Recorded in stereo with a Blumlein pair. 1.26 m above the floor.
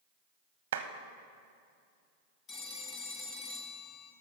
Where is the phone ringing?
25° left, 1.3 m.